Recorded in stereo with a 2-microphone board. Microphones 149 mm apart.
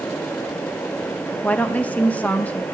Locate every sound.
1.4 s a woman speaking: 10° left (ahead or behind), 0.5 m